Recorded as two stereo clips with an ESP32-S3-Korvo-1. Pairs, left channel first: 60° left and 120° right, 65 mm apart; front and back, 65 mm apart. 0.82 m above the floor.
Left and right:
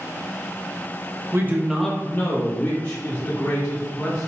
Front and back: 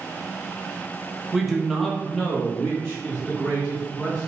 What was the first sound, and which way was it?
A man speaking, 100° right.